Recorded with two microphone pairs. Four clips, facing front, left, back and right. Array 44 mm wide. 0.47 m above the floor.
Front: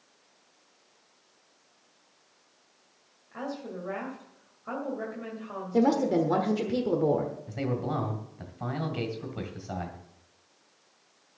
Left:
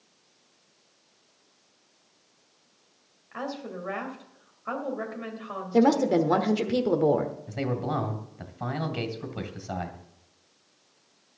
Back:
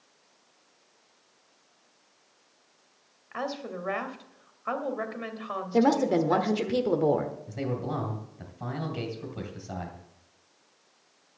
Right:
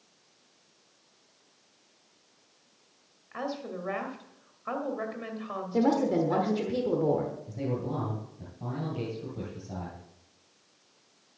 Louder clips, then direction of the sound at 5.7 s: Left 4 dB, back 1 dB; 135° left.